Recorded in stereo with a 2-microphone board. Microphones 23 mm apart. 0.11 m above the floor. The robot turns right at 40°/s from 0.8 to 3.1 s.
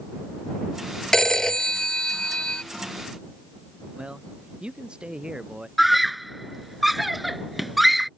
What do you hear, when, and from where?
1.1 s a phone ringing: 35° left; by 2.6 s 95° left
4.0 s a man speaking: 45° right (ahead or behind)
5.8 s a scream: centre (ahead or behind)